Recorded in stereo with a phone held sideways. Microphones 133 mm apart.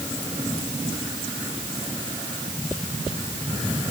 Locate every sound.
Only background noise.